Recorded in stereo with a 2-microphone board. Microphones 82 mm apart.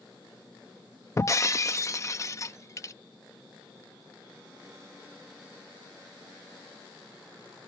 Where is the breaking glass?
35° left (ahead or behind).